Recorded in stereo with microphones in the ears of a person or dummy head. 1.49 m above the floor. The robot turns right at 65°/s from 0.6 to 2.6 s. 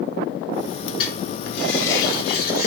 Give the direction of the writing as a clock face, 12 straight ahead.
11 o'clock.